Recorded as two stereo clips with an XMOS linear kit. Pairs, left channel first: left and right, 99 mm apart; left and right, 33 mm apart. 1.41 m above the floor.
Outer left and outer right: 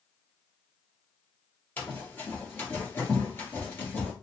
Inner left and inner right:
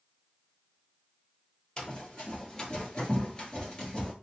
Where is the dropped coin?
I don't hear a dropped coin.